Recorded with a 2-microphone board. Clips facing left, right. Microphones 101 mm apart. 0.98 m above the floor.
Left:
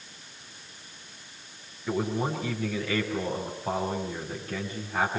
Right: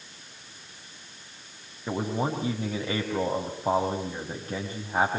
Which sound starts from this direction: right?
A man speaking, at 1.9 s.